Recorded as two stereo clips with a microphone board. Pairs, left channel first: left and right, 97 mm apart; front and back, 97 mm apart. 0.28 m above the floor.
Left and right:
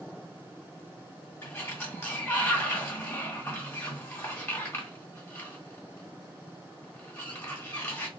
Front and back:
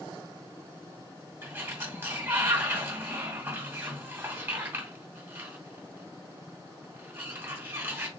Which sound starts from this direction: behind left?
A sliding door, at 1.4 s.